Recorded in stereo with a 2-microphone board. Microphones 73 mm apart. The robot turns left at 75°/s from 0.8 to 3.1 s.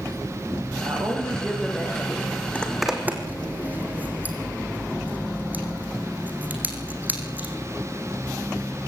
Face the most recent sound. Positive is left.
turn(degrees=-25)  # may be behind; listen again after turning